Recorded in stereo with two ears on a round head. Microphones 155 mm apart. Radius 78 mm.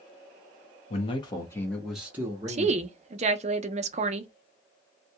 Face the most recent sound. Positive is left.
turn(degrees=-40)  # may be behind; listen again after turning